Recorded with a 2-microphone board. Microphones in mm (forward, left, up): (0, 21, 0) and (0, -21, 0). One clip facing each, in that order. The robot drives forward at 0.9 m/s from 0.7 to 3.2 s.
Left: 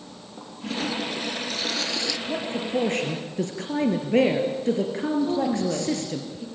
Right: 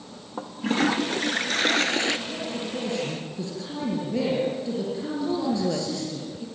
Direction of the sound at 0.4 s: 50° right (ahead or behind).